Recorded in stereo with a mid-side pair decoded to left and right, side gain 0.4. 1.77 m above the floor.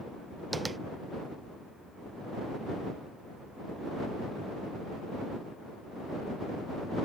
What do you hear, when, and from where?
0.5 s tapping: 30° right